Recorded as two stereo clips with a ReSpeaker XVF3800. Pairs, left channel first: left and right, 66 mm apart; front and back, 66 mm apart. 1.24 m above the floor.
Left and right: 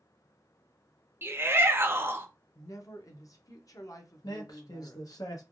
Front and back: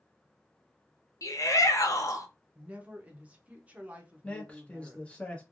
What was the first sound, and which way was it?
A shout, 35° right.